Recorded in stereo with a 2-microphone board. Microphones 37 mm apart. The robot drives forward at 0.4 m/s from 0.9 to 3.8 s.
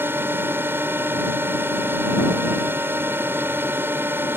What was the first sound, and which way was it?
A drone, 65° right (ahead or behind).